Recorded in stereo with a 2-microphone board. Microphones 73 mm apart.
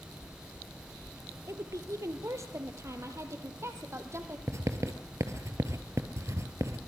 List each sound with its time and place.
1.5 s a woman speaking: 40° right (ahead or behind), 2 m; by 4.4 s 35° right (ahead or behind), 4 m
4.5 s writing: 40° right (ahead or behind), 2 m